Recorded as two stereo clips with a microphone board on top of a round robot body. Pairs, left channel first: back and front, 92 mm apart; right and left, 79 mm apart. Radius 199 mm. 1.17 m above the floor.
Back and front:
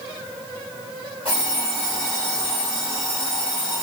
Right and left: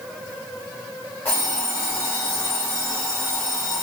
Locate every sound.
1.2 s an alarm clock: 160° right, 0.9 m